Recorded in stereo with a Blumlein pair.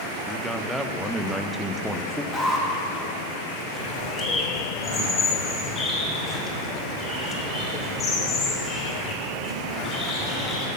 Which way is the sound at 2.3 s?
5° left.